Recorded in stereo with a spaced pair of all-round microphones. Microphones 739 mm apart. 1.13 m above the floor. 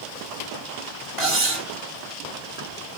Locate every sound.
1.2 s cutlery clinking: 50° right (ahead or behind), 2 m